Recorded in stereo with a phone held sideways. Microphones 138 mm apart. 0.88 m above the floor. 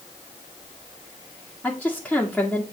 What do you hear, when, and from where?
1.6 s a woman speaking: 5° left (ahead or behind), 1.6 m